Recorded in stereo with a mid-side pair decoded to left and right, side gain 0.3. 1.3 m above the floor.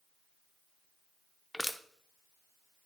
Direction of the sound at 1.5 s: Straight ahead.